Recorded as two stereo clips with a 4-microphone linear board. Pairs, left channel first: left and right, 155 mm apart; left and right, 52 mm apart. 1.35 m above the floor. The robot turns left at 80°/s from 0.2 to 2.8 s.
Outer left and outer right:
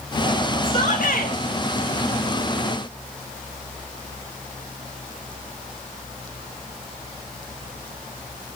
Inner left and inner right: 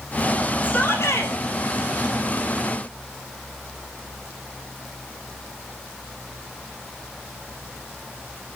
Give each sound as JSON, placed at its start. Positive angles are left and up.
{"t": 0.6, "sound": "a shout", "azimuth_deg": 150, "distance_m": 4.0}